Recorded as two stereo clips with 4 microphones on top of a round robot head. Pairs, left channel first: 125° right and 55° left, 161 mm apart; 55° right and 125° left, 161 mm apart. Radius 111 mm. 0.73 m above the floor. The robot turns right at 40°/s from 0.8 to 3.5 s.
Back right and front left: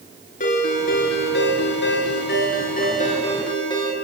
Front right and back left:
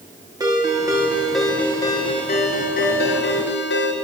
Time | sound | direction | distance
0.4 | a ringtone | 165° right | 6 m